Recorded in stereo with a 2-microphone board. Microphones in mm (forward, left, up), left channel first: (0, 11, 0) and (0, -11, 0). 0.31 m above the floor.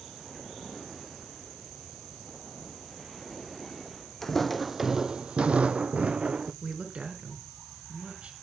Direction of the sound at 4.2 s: 15° left (ahead or behind).